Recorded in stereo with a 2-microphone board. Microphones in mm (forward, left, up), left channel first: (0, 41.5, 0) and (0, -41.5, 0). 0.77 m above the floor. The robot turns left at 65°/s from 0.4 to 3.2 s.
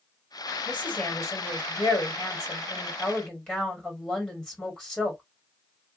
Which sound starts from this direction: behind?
A woman speaking, at 0.7 s.